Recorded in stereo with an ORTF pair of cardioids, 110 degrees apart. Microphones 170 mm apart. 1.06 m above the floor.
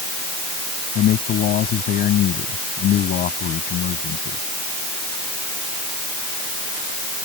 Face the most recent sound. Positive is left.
turn(degrees=65)